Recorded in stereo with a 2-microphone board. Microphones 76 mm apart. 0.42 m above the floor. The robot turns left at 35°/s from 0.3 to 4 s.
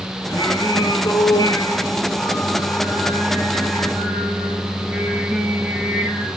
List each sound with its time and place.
0.3 s singing: 115° left, 9.5 m; by 6.3 s 15° right, 9.5 m